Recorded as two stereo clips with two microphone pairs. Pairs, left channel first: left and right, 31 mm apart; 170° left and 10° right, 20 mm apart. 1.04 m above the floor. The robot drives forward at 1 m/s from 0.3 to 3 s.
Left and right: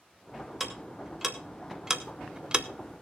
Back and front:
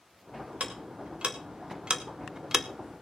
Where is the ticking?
10° right, 2.5 m; by 2.7 s 70° right, 0.7 m.